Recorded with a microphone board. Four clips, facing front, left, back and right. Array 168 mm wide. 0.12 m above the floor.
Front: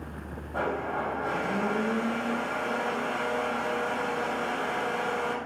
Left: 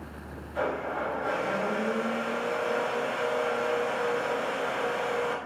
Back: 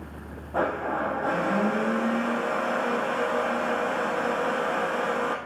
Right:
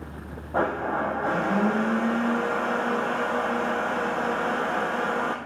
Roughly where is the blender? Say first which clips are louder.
Right 5 dB, back 4 dB; right.